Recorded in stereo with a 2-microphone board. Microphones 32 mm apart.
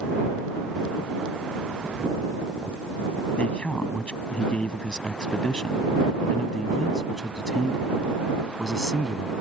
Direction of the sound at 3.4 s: 35° left (ahead or behind).